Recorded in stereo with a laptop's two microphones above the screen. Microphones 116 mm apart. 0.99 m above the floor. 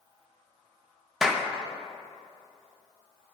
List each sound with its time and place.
1.2 s a clap: 5° right (ahead or behind), 0.6 m